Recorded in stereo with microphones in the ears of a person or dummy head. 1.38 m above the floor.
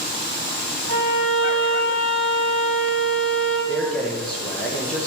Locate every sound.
0.9 s a violin: 50° left (ahead or behind), 5 m
3.7 s a man speaking: 10° left (ahead or behind), 2.0 m